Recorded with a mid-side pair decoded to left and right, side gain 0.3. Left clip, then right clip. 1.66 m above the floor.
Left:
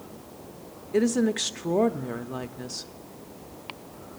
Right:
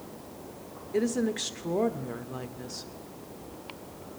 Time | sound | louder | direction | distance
0.9 | a woman speaking | left 4 dB | 45° left | 0.6 m